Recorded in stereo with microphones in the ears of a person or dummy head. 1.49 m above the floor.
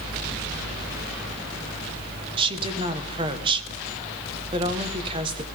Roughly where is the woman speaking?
Right.